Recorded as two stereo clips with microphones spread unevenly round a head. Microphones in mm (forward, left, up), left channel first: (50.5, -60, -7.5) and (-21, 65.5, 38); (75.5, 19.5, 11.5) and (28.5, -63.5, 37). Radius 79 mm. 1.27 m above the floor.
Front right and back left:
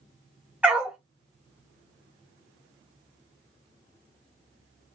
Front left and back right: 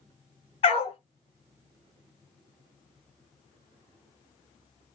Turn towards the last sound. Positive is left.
turn(degrees=80)